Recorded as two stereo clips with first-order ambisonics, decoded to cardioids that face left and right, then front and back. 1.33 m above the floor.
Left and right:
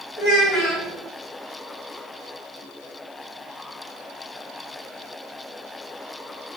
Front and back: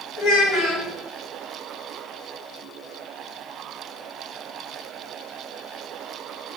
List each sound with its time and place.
0.2 s a child speaking: 45° left, 1.3 m